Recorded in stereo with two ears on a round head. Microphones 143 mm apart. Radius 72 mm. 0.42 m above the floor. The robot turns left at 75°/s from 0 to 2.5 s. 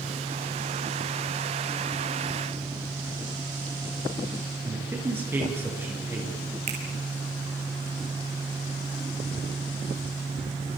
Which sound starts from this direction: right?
A finger snap, at 6.7 s.